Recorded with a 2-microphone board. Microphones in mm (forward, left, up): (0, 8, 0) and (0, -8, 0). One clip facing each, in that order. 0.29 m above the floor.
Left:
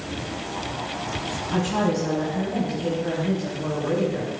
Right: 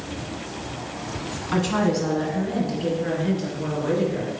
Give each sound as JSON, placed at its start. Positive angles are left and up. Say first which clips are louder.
{"t": 1.5, "sound": "a woman speaking", "louder": "right 2 dB", "side_deg": -40, "distance_m": 2.0}